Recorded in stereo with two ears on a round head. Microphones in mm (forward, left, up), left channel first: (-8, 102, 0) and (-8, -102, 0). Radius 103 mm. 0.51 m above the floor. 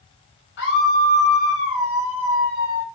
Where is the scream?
55° left (ahead or behind), 3.5 m.